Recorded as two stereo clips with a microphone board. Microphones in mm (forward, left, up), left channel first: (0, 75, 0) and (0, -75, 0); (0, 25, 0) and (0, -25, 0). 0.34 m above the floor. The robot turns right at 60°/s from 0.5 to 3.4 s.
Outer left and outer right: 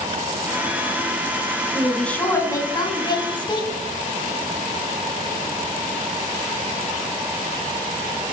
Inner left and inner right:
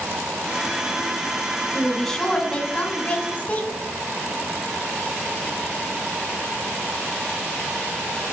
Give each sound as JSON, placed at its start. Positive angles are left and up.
{"t": 1.7, "sound": "a woman speaking", "azimuth_deg": -5, "distance_m": 1.3}